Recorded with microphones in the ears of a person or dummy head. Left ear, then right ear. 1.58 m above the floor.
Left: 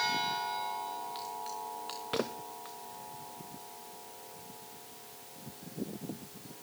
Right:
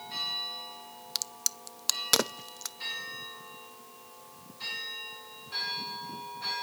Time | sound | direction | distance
1.1 | a crack | 70° right (ahead or behind) | 0.6 m